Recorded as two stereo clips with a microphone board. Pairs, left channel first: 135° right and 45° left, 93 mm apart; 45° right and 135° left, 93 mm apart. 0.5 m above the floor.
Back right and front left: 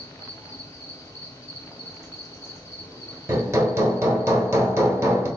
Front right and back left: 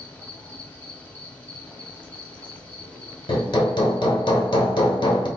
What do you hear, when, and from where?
0.0 s an insect: 105° right, 0.9 m
3.3 s hammering: 15° right, 0.8 m